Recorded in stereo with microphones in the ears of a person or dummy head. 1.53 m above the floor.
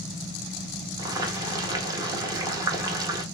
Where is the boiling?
20° right (ahead or behind), 0.6 m.